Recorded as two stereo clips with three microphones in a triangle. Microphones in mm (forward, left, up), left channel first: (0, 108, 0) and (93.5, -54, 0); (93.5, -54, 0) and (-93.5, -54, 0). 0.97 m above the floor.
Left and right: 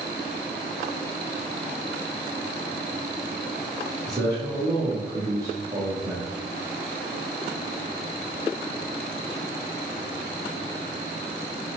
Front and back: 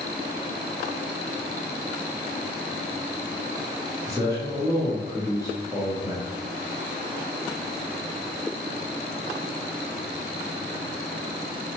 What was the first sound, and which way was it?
A man speaking, 120° right.